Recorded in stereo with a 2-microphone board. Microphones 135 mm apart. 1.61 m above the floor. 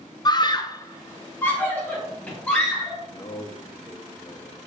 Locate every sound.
0.2 s a scream: 30° left (ahead or behind), 0.5 m; by 3.0 s 10° left (ahead or behind), 3 m
3.1 s a man speaking: 35° left (ahead or behind), 0.7 m